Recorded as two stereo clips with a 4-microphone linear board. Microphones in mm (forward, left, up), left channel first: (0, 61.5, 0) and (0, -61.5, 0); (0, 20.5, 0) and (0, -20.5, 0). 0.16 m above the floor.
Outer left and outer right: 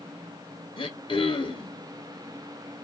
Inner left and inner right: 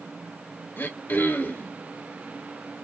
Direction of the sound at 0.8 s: 45° left (ahead or behind).